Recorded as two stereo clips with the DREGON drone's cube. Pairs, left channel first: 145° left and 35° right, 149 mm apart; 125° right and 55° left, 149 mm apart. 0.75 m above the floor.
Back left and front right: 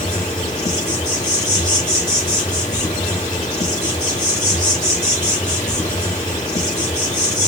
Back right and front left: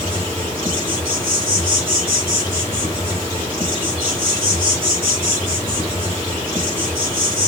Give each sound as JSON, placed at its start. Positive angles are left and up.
{"t": 0.0, "sound": "an insect", "azimuth_deg": 105, "distance_m": 2.0}